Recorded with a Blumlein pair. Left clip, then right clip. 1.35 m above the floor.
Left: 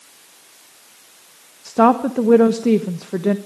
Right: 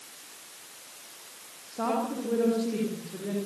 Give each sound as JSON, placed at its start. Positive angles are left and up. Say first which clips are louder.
{"t": 1.6, "sound": "a woman speaking", "louder": "left 14 dB", "azimuth_deg": 50, "distance_m": 1.2}